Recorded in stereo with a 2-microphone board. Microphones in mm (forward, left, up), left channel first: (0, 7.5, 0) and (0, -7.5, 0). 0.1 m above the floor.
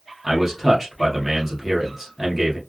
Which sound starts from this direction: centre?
A man speaking, at 0.2 s.